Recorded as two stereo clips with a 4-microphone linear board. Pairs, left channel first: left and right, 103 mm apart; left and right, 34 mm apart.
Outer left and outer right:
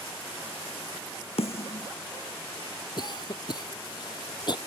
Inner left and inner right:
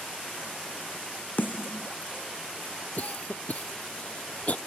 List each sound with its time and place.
1.4 s a snare drum: 75° left (ahead or behind)
3.0 s a cough: 45° left (ahead or behind)